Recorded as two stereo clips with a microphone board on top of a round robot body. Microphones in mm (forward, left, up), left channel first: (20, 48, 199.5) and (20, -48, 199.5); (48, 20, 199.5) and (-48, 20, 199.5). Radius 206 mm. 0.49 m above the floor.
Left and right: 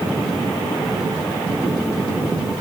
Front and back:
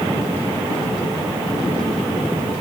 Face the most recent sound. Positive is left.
No sound to turn to.